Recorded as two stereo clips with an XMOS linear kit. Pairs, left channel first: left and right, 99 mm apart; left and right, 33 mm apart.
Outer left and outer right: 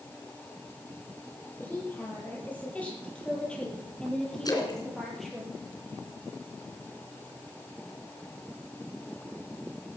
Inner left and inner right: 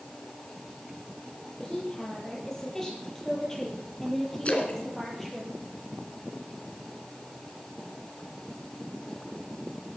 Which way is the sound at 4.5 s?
40° left (ahead or behind).